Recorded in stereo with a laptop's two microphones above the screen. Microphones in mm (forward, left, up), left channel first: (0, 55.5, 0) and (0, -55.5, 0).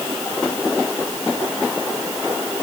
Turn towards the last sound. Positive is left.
No sound to turn to.